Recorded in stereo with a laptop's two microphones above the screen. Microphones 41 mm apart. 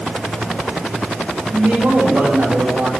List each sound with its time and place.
1.5 s a man speaking: 85° right, 4.5 m